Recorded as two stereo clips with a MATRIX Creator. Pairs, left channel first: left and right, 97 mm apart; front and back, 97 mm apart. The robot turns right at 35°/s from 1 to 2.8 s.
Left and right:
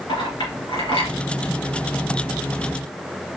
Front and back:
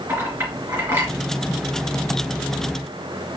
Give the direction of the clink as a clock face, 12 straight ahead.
8 o'clock.